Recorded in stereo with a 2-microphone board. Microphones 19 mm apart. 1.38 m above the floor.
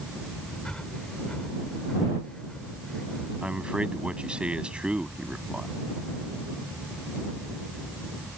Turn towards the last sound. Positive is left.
turn(degrees=-60)  # may be behind; listen again after turning